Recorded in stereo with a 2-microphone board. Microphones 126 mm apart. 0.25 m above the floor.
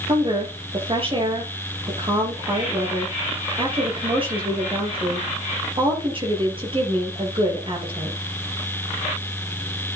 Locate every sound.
0.1 s a woman speaking: 45° right (ahead or behind), 7 m